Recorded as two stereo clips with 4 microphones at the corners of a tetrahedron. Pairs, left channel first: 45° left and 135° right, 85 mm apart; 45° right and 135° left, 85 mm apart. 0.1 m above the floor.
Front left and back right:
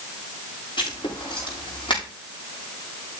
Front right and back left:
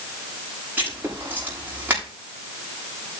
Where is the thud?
I don't hear a thud.